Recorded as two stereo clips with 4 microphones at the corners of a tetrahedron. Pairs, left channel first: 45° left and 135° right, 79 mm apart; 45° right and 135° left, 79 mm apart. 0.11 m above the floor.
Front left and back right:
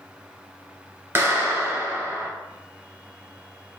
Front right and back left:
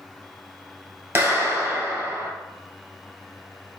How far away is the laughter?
I don't hear laughter.